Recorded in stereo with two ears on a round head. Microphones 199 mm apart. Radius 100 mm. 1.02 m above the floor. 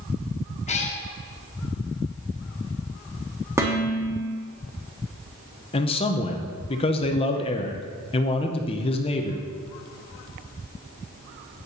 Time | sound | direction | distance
0.7 | a cat meowing | 30° left (ahead or behind) | 0.8 m
3.6 | dishes clattering | 10° right (ahead or behind) | 1.0 m
5.7 | a man speaking | 25° left (ahead or behind) | 0.6 m